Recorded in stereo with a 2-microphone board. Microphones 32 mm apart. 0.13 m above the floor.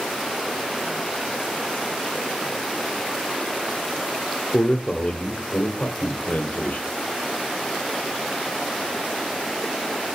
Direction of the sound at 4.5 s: 30° left (ahead or behind).